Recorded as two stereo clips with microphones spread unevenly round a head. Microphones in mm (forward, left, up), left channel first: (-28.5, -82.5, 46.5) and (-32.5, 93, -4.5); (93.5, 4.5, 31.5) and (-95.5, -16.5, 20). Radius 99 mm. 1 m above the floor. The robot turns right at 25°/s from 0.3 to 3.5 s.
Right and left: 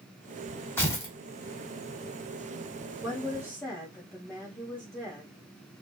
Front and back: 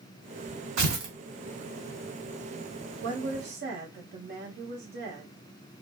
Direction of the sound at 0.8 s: 155° right.